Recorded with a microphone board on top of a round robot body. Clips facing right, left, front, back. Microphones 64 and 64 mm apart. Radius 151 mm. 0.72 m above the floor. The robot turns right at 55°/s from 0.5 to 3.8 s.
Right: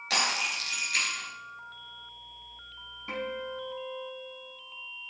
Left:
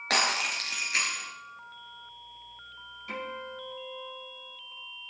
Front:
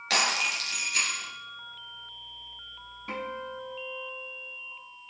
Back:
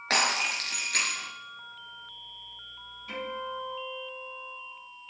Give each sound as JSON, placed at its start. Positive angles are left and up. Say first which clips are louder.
{"t": 0.1, "sound": "breaking glass", "louder": "left 2 dB, even", "azimuth_deg": 130, "distance_m": 4.0}
{"t": 3.1, "sound": "a guitar", "louder": "right 3 dB, even", "azimuth_deg": -35, "distance_m": 8.0}